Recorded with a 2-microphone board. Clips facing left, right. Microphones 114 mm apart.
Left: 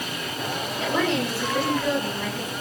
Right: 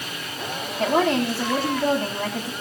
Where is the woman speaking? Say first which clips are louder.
Right 5 dB; 45° right (ahead or behind), 9 m.